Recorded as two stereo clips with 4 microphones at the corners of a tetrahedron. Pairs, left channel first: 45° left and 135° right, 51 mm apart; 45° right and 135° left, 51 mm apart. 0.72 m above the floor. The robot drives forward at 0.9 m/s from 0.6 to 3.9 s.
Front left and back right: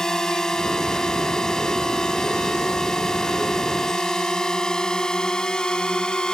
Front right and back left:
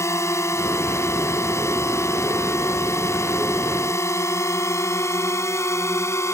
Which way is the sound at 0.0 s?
35° right.